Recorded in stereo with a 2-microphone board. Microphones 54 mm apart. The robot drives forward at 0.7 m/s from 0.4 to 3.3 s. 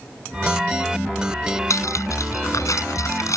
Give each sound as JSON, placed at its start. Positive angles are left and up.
{"t": 1.7, "sound": "cutlery clinking", "side_deg": 75}